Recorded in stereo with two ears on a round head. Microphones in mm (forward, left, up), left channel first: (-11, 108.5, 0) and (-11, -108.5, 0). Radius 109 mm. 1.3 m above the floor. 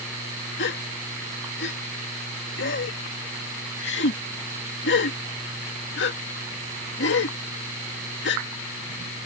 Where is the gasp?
50° left (ahead or behind).